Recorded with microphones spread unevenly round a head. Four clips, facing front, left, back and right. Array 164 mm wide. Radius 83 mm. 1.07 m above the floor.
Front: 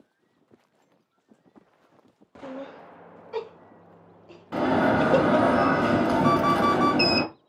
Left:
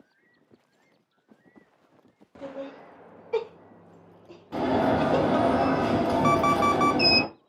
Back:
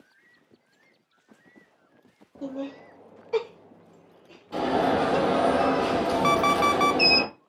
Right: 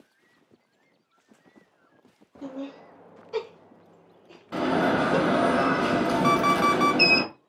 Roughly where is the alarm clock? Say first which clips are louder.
Right 1 dB, front 1 dB; behind.